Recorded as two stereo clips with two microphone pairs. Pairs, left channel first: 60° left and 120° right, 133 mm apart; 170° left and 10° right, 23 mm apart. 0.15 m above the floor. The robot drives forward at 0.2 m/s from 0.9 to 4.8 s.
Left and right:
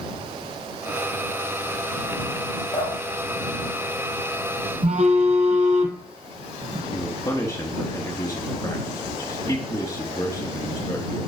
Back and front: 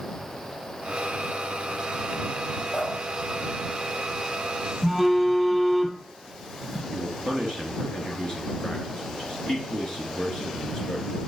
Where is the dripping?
105° left, 3.5 m; by 4.7 s 115° left, 4 m.